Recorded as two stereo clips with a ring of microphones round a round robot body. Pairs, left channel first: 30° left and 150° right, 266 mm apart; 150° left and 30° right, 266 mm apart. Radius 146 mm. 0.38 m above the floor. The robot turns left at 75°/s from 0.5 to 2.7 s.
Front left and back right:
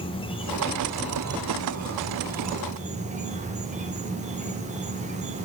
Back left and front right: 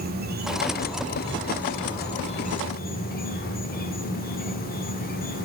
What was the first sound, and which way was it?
An insect, 25° right.